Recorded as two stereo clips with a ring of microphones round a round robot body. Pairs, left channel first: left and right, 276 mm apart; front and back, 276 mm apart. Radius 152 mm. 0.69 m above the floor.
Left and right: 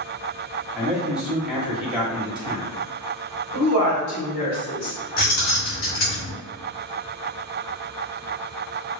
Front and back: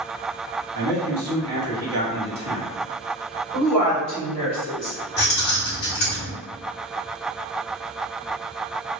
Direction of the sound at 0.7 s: 175° right.